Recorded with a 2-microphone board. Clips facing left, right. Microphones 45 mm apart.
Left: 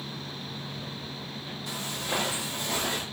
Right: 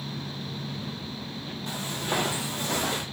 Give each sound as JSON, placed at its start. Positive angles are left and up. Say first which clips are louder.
{"t": 1.7, "sound": "footsteps", "louder": "right 2 dB", "side_deg": -45, "distance_m": 2.0}